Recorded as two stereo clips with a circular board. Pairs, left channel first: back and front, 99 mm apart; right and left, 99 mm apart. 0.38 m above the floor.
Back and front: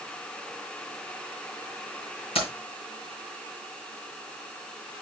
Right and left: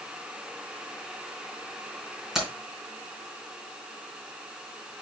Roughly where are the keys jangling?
Behind.